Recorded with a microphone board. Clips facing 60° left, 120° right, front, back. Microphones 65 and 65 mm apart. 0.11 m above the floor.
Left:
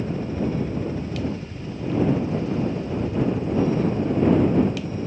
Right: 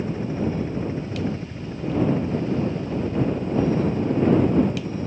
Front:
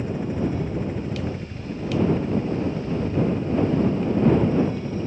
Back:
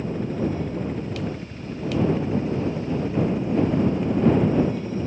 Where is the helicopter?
70° right; by 5.1 s 110° right.